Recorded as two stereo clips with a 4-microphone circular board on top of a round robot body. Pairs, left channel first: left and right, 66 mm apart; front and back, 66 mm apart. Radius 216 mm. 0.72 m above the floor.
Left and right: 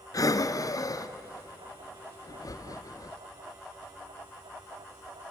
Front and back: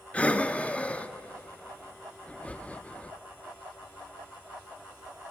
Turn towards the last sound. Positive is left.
turn(degrees=70)